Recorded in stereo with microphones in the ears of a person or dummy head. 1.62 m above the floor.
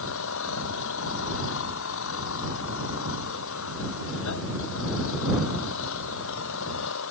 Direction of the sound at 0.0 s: 65° left (ahead or behind).